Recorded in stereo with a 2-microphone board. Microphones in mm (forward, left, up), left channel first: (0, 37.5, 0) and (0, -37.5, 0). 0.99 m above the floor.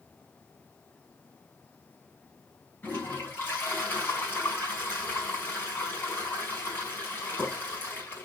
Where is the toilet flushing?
30° left (ahead or behind), 5 m.